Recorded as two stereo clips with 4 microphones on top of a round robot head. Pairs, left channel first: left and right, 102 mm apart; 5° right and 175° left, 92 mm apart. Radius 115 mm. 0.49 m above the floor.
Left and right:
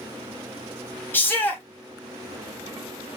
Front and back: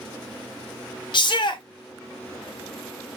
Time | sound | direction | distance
1.1 | a shout | 20° left | 1.5 m